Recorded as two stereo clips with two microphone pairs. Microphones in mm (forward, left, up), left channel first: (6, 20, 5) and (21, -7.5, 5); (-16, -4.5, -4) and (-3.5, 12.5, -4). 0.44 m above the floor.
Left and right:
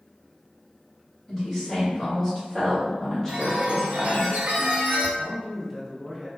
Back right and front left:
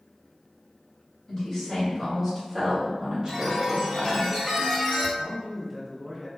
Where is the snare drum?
No snare drum in this recording.